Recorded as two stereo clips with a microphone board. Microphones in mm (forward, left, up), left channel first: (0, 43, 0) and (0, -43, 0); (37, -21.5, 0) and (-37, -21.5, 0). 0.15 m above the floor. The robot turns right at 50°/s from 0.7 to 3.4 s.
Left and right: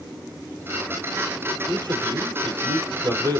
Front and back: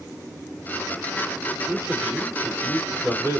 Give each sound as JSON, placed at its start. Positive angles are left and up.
{"t": 1.7, "sound": "a man speaking", "azimuth_deg": -125, "distance_m": 3.5}